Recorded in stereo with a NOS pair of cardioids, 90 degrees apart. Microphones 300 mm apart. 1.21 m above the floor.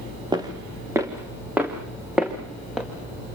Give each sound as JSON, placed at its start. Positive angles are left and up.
{"t": 0.3, "sound": "footsteps", "azimuth_deg": -15, "distance_m": 5.0}